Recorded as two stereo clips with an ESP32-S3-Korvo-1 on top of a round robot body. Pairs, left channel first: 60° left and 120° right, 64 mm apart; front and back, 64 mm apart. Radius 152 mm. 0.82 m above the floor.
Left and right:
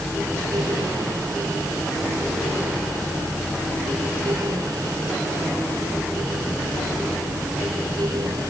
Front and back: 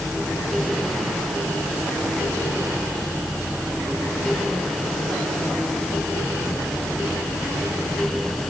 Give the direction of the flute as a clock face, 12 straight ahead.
No flute in this recording.